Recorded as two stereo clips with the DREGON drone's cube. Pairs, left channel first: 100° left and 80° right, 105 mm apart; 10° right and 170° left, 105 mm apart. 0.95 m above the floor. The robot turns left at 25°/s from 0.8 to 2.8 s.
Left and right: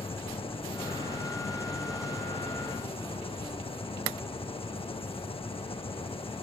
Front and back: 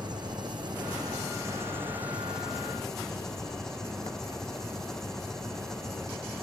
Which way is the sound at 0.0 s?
125° left.